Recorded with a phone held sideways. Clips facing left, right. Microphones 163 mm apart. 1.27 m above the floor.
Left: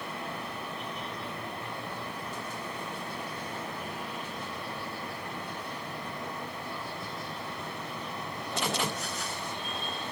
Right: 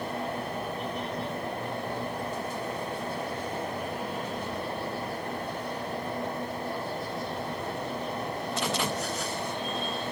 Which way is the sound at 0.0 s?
45° right (ahead or behind).